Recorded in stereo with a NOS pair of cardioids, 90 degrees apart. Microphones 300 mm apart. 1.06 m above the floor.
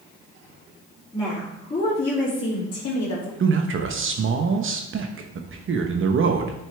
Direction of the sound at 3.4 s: 45° right.